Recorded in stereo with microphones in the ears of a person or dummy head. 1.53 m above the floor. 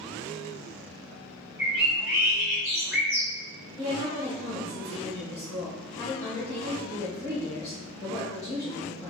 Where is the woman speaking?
15° left (ahead or behind), 1.7 m.